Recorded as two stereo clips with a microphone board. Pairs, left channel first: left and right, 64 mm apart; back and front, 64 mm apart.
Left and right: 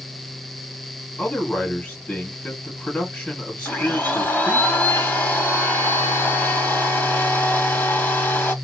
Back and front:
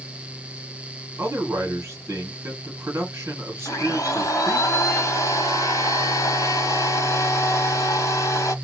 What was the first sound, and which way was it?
A man speaking, 25° left.